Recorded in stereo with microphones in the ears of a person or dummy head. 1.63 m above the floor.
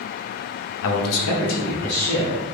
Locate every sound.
0.8 s a man speaking: 70° left (ahead or behind), 0.5 m; by 2.5 s 75° left (ahead or behind), 1.5 m